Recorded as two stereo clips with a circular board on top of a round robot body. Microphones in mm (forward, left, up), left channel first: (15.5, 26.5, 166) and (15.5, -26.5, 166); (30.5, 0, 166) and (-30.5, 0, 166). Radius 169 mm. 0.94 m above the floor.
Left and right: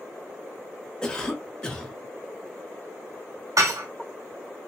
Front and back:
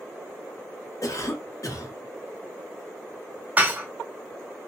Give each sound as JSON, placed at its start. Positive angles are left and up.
{"t": 1.0, "sound": "a cough", "azimuth_deg": 15, "distance_m": 1.2}
{"t": 3.6, "sound": "dishes clattering", "azimuth_deg": -115, "distance_m": 0.6}